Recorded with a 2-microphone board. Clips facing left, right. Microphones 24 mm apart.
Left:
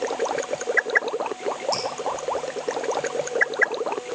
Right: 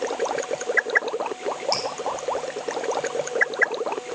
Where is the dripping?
50° right (ahead or behind), 3.5 m.